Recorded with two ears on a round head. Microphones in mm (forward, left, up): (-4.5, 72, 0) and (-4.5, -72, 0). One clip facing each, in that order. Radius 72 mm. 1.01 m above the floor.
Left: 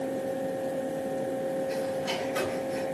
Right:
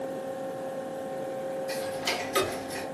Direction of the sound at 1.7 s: 75° right (ahead or behind).